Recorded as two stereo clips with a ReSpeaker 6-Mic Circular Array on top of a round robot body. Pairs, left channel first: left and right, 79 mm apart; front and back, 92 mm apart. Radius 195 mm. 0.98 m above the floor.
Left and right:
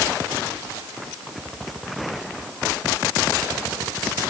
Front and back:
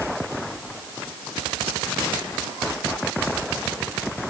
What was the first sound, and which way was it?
Only background noise.